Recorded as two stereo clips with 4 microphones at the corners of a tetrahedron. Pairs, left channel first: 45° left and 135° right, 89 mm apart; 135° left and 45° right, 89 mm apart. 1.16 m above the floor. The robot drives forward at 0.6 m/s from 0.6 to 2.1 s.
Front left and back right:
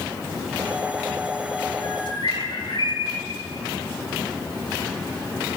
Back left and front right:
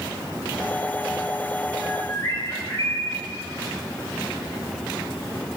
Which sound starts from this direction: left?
A bird, at 1.8 s.